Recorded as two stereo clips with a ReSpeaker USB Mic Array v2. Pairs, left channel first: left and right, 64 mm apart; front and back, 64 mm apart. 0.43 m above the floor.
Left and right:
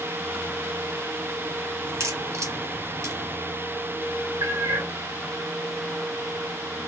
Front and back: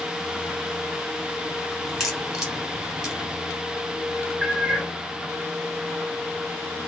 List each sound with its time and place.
1.9 s a crack: 95° right, 1.8 m
4.4 s a cat meowing: 75° right, 3.5 m